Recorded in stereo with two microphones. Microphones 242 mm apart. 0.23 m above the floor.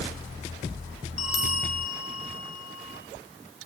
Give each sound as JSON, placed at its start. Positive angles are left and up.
{"t": 1.2, "sound": "a bell", "side_deg": 70, "distance_m": 2.0}